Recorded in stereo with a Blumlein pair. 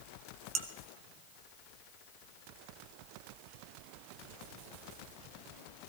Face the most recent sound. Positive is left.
turn(degrees=-30)